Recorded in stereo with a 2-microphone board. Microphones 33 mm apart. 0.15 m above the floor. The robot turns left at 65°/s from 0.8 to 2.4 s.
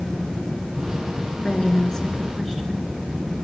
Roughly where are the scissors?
No scissors in this recording.